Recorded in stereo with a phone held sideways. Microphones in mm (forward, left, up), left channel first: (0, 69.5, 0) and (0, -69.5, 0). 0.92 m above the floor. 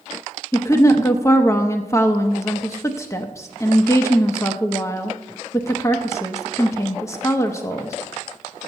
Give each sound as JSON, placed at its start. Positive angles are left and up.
{"t": 0.5, "sound": "a woman speaking", "side_deg": 20, "distance_m": 0.8}